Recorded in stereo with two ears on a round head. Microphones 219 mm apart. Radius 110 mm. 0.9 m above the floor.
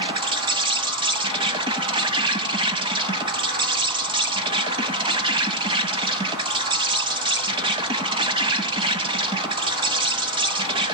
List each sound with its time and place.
0.0 s an insect: 20° right (ahead or behind), 0.9 m